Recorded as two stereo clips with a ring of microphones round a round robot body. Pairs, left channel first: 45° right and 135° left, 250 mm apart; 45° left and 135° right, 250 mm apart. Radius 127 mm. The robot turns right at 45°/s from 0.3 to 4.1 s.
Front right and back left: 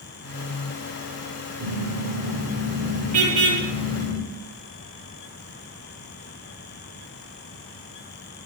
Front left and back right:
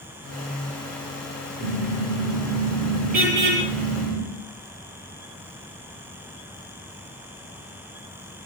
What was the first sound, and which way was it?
A car horn, 95° left.